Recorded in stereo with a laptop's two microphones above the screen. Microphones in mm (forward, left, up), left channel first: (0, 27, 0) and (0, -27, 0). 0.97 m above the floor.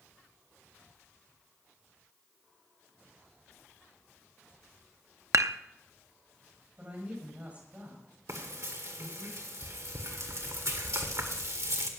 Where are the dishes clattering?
65° right (ahead or behind), 0.7 m.